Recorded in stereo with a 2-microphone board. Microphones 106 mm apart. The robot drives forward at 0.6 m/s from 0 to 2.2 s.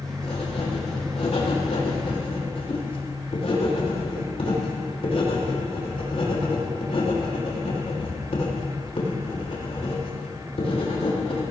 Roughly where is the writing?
Left.